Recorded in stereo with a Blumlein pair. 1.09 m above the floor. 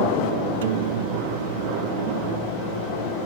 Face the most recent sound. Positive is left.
turn(degrees=-55)